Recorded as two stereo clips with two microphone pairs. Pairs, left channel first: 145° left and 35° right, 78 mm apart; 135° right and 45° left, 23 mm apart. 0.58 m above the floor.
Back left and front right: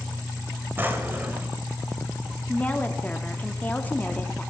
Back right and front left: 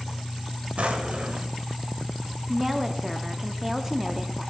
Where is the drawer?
30° left, 1.0 m.